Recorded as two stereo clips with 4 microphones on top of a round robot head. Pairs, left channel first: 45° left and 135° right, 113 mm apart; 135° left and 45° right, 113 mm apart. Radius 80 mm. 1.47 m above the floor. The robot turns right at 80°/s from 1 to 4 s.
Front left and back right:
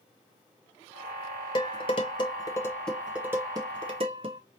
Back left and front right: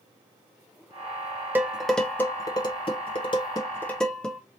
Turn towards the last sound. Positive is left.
turn(degrees=-145)